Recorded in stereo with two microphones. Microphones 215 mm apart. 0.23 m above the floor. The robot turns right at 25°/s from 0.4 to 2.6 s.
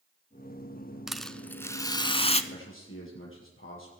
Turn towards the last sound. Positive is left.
turn(degrees=70)  # may be behind; listen again after turning